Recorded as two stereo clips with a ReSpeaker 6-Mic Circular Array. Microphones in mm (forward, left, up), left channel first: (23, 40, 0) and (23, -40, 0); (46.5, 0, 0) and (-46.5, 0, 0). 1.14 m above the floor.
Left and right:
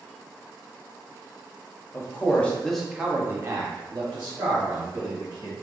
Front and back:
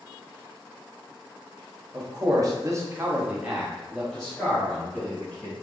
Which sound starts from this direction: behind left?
A man speaking, at 1.9 s.